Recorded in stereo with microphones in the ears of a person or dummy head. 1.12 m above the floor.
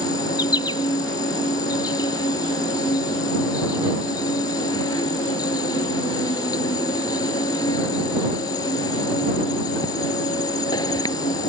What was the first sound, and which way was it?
An insect, 25° left (ahead or behind).